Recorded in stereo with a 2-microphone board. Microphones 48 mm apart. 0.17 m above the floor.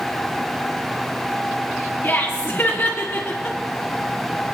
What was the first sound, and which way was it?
Laughter, 40° left (ahead or behind).